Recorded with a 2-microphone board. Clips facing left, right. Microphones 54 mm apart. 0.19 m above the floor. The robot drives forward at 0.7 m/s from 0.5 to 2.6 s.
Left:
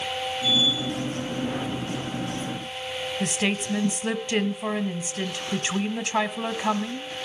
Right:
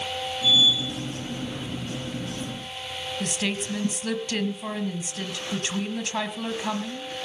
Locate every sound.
3.2 s a woman speaking: 20° left (ahead or behind), 1.0 m